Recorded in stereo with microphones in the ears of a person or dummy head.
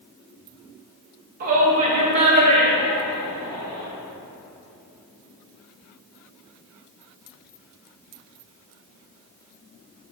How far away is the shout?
About 1.7 m.